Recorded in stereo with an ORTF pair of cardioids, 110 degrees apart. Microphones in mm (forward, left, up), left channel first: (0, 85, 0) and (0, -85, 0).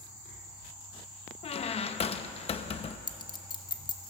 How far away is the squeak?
About 0.8 m.